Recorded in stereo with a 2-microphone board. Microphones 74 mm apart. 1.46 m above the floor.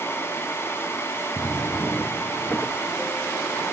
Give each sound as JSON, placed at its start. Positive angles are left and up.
{"t": 1.4, "sound": "a drawer", "side_deg": 20, "distance_m": 0.7}